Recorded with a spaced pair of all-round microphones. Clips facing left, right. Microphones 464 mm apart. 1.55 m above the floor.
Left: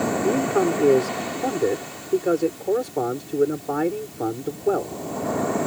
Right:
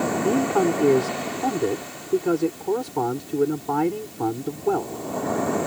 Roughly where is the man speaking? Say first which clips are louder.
Even; centre.